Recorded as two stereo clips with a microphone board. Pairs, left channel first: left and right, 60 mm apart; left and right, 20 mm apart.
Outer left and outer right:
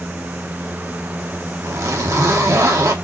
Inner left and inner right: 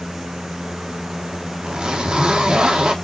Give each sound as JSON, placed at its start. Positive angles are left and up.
{"t": 1.6, "sound": "a zipper", "side_deg": -65, "distance_m": 1.3}